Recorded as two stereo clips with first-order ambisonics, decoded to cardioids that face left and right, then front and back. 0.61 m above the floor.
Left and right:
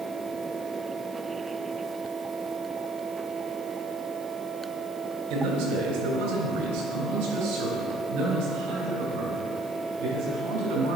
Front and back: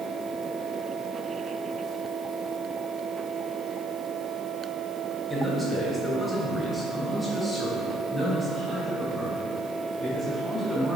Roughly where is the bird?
I don't hear a bird.